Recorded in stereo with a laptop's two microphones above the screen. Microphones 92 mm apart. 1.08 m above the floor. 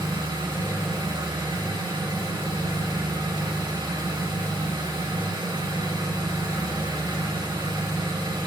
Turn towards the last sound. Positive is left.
turn(degrees=-60)  # may be behind; listen again after turning